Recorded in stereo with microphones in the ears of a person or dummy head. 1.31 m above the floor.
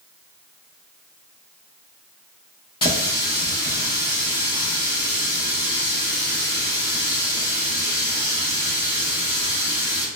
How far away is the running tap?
About 0.7 m.